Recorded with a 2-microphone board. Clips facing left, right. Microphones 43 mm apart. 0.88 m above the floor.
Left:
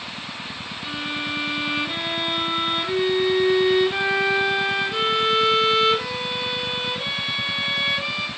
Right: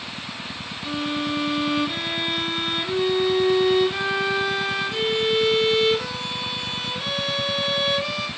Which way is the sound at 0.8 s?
15° left (ahead or behind).